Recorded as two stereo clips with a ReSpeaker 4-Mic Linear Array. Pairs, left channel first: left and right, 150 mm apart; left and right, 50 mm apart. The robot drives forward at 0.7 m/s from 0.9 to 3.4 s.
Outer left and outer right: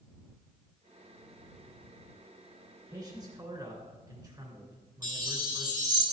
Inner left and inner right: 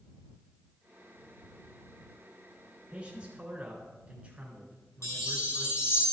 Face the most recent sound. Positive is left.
turn(degrees=65)  # may be behind; listen again after turning